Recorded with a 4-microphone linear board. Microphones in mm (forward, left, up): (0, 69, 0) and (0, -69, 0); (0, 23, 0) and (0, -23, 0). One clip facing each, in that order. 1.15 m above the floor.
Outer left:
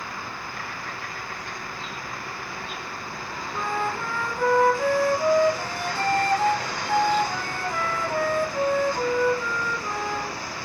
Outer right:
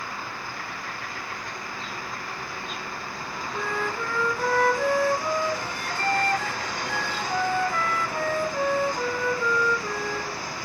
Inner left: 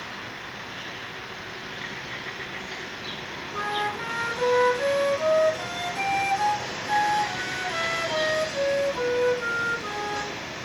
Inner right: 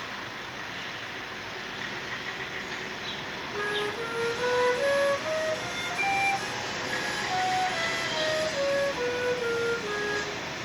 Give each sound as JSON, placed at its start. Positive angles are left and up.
{"t": 3.5, "sound": "a flute", "side_deg": 45, "distance_m": 1.4}